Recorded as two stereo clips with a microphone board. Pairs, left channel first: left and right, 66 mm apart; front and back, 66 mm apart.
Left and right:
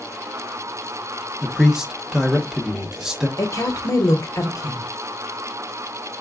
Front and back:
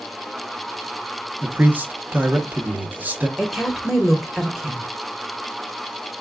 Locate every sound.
1.4 s a man speaking: 160° right, 0.7 m
3.4 s a woman speaking: 90° left, 1.0 m